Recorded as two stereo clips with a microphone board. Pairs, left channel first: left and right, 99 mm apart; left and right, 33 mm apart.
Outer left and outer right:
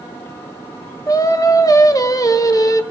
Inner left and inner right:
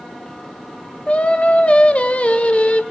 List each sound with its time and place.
1.1 s singing: 35° left (ahead or behind), 0.6 m